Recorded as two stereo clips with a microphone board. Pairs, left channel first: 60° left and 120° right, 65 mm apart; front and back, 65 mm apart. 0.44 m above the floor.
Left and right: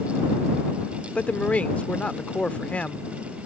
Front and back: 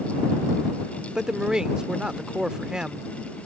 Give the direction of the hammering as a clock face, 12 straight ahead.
No hammering in this recording.